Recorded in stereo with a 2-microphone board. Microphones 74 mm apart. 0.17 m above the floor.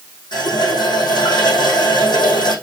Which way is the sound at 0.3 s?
80° left.